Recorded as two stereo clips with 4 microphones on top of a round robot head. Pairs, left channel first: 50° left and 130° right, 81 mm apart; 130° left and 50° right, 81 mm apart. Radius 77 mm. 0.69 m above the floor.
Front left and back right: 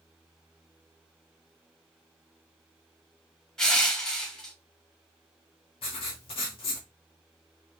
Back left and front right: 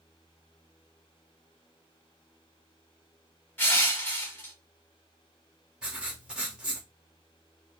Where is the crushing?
115° left, 1.0 m.